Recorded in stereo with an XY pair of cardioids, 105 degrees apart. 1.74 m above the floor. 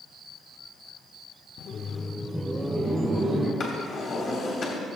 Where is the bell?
I don't hear a bell.